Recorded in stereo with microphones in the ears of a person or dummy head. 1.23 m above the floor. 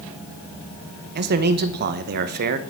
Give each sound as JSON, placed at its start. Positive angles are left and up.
{"t": 1.1, "sound": "a man speaking", "side_deg": -50, "distance_m": 0.8}